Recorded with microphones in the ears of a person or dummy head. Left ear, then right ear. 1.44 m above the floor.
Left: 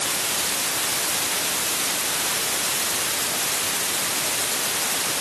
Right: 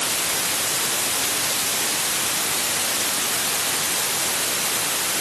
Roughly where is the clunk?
I don't hear a clunk.